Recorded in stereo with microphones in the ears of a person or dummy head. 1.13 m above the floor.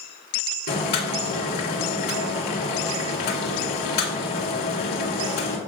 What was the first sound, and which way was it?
Boiling, 60° left (ahead or behind).